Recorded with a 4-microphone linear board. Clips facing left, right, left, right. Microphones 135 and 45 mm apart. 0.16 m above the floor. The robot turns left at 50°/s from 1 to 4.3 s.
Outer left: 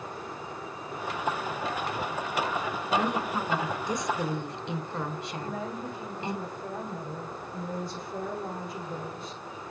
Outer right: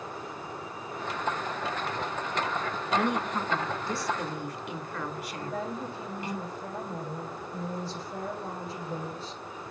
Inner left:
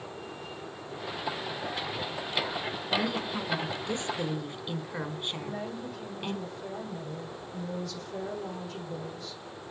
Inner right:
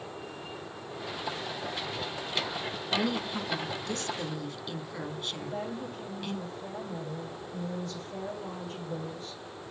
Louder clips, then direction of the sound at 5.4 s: Outer right 2 dB, inner right 1 dB; 30° right (ahead or behind).